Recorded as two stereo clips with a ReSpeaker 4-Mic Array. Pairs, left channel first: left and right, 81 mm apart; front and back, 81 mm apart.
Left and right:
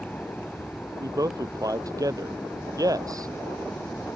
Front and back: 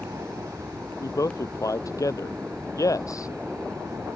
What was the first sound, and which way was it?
An aircraft, 150° left.